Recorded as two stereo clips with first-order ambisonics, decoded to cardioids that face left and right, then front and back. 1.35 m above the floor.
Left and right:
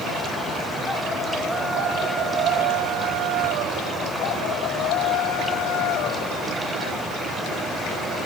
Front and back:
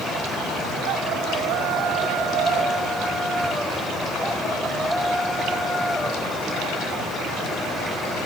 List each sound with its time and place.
Only background noise.